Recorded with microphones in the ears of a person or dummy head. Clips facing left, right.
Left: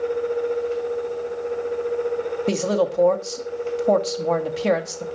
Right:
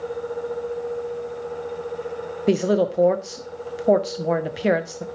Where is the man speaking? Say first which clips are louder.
Right 3 dB; 15° right (ahead or behind), 0.6 m.